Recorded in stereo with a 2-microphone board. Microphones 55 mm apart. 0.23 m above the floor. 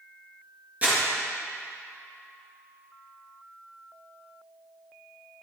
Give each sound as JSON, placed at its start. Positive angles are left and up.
{"t": 0.8, "sound": "crumpling", "side_deg": -25, "distance_m": 3.5}